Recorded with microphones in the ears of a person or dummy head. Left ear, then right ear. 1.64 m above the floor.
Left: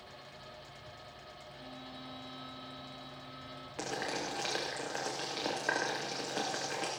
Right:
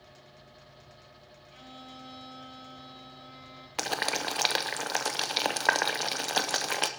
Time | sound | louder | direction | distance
1.5 | a violin | right 3 dB | 65° right (ahead or behind) | 2 m
3.8 | boiling | right 7 dB | 35° right (ahead or behind) | 0.6 m